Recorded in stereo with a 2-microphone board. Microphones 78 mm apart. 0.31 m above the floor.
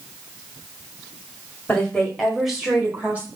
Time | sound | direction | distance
1.7 | a woman speaking | 15° left (ahead or behind) | 1.7 m